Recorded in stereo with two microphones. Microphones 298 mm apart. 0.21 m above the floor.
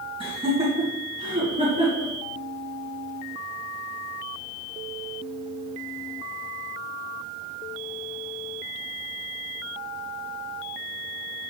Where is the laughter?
20° right (ahead or behind), 2 m; by 2.1 s 25° right (ahead or behind), 4 m.